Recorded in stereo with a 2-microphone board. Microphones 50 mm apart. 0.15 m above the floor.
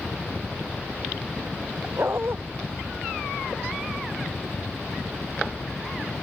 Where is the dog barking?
50° right (ahead or behind).